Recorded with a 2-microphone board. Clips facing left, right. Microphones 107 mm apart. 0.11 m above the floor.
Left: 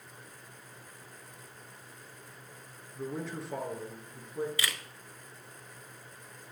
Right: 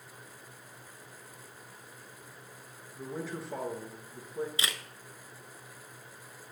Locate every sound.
3.0 s a man speaking: centre (ahead or behind), 1.2 m
4.6 s a camera shutter: 25° right (ahead or behind), 0.5 m